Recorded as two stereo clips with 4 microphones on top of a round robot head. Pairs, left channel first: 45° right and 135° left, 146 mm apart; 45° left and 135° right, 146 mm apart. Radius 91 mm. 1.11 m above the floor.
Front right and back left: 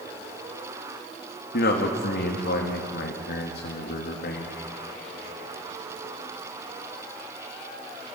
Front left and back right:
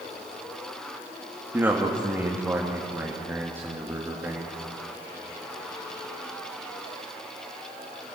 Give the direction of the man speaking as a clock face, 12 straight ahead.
2 o'clock.